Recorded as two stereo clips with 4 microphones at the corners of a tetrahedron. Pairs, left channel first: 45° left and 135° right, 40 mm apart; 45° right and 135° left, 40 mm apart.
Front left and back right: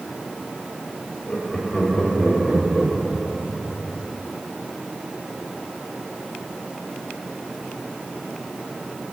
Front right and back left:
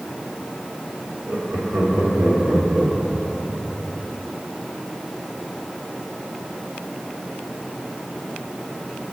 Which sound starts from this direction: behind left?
Laughter, at 1.3 s.